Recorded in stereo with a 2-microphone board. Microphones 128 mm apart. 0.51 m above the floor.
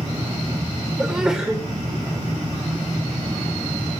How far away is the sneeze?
About 1.8 m.